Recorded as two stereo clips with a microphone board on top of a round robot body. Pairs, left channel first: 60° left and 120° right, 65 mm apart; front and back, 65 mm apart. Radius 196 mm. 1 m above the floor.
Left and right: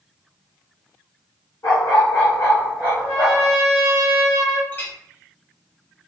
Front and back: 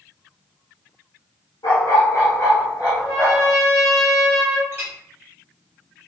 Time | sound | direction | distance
1.6 | a dog barking | 20° left | 0.8 m
3.0 | a trumpet | 105° left | 1.4 m
4.7 | a clink | 125° left | 1.0 m